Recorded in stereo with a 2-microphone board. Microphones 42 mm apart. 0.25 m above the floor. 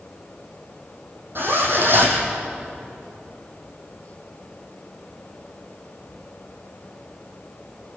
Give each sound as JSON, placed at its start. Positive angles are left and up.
{"t": 1.4, "sound": "a zipper", "side_deg": -55, "distance_m": 4.5}